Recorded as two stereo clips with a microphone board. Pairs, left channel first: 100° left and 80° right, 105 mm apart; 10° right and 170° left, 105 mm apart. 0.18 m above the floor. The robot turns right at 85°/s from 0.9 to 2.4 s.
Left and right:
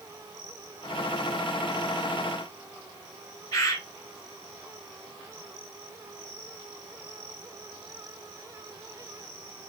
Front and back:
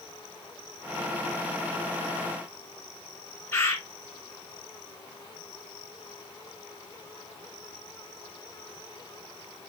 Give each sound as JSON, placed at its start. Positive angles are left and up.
{"t": 3.5, "sound": "a bird", "azimuth_deg": 55, "distance_m": 2.0}